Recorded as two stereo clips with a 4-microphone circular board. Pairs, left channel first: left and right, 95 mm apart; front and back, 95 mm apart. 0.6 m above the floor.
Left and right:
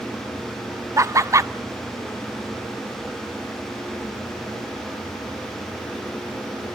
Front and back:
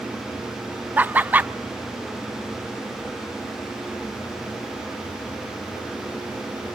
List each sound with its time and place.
1.0 s laughter: 120° right, 0.7 m